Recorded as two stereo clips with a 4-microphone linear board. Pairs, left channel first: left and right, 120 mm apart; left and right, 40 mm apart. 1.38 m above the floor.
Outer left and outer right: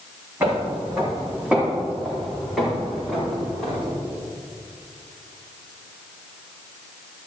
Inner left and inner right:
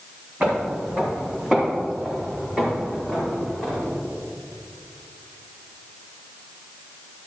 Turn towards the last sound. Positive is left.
turn(degrees=5)  # may be behind; listen again after turning